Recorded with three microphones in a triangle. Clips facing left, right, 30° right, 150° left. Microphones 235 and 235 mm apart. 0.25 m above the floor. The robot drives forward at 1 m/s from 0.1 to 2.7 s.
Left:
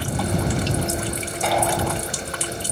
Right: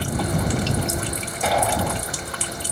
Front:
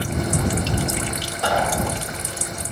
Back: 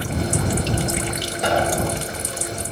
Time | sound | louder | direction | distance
1.4 | an explosion | even, back 2 dB | 175° right | 0.6 m